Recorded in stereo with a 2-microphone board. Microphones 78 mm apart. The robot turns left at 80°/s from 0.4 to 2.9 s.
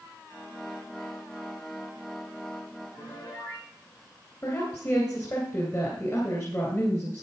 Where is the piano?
45° left (ahead or behind), 7 m.